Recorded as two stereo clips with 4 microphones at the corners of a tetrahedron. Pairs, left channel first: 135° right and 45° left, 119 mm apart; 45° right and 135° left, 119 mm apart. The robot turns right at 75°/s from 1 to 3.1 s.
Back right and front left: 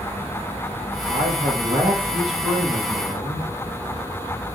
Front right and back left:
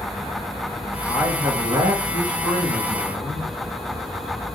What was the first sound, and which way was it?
A man speaking, 40° left.